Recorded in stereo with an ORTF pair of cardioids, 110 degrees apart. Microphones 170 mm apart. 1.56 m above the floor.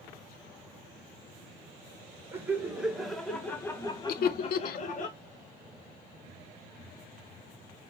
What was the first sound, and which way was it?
Laughter, 15° right.